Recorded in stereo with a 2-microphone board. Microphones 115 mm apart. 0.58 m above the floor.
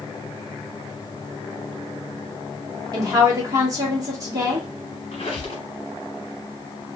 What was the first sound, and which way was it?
A woman speaking, 30° right (ahead or behind).